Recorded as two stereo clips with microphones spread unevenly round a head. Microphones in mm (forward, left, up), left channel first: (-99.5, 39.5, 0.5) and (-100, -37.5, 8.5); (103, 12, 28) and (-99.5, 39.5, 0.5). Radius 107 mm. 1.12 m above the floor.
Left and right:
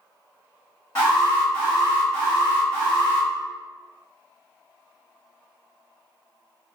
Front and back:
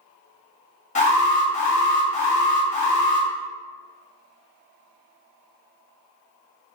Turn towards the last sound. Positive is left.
turn(degrees=45)